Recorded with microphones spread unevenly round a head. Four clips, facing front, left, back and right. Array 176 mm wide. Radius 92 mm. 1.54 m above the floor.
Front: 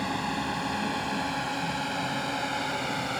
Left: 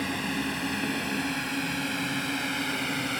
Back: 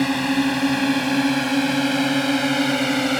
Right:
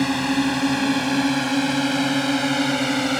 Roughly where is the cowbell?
No cowbell in this recording.